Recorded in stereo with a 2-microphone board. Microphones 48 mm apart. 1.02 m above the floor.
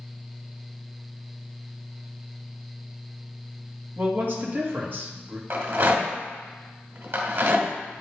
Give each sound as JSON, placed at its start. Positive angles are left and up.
{"t": 4.0, "sound": "a man speaking", "side_deg": -45, "distance_m": 1.5}
{"t": 5.5, "sound": "a rattle", "side_deg": -55, "distance_m": 2.0}